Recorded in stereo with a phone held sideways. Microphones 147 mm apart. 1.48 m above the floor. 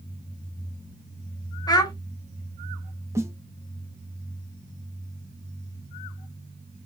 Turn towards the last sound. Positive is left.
turn(degrees=-20)  # may be behind; listen again after turning